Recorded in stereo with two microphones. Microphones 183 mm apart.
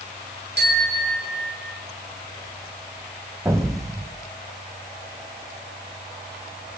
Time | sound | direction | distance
0.6 | a bicycle bell | 75° right (ahead or behind) | 4.5 m
3.5 | an explosion | 20° right (ahead or behind) | 2 m